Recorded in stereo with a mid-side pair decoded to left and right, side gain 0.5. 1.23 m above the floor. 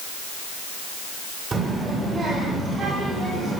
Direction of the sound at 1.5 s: 35° right.